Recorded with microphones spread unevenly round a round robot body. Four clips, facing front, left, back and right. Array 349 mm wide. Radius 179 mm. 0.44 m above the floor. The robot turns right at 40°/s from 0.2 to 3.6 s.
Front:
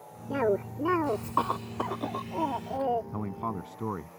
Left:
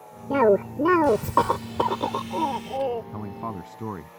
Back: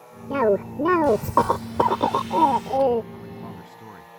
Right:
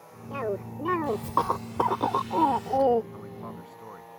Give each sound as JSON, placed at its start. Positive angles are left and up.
{"t": 0.3, "sound": "a cough", "azimuth_deg": 110}
{"t": 3.1, "sound": "a man speaking", "azimuth_deg": 40}